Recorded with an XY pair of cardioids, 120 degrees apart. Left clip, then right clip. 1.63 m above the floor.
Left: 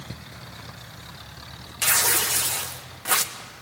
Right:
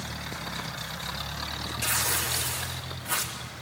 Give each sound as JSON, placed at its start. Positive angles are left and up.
{"t": 1.8, "sound": "tearing paper", "azimuth_deg": 65, "distance_m": 1.6}